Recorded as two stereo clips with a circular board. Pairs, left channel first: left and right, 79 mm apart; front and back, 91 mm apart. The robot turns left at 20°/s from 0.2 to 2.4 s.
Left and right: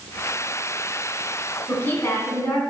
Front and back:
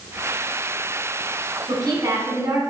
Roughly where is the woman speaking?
Behind left.